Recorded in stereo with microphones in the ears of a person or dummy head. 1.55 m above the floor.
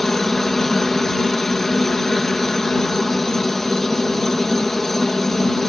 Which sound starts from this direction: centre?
A helicopter, at 0.0 s.